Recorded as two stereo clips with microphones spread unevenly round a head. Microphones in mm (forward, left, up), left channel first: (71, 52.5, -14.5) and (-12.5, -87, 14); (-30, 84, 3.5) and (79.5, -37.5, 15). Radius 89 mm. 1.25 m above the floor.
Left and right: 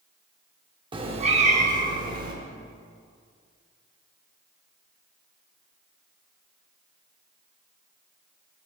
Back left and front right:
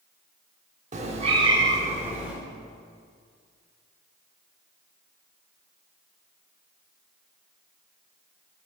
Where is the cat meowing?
80° right, 1.1 m; by 2.3 s 130° right, 1.6 m.